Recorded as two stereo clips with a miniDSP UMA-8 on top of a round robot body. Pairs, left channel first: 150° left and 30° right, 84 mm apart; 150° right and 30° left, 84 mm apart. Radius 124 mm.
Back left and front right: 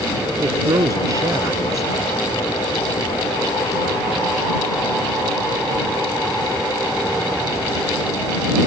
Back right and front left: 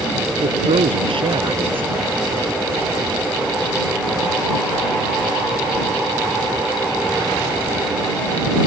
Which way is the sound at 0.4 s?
20° left.